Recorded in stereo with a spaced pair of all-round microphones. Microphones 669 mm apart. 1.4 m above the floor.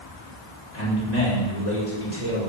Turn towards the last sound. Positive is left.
turn(degrees=75)  # may be behind; listen again after turning